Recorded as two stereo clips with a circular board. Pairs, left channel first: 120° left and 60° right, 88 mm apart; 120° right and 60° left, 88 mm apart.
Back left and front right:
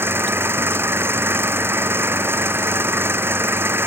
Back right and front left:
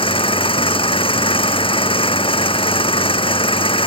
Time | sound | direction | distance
0.0 | an engine running | 125° right | ?